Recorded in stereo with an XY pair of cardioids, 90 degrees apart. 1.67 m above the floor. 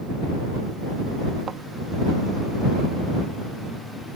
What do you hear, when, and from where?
1.5 s a thud: 60° right